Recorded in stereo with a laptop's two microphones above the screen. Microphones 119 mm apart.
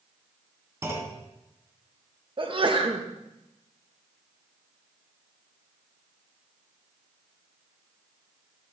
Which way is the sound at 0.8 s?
25° right (ahead or behind).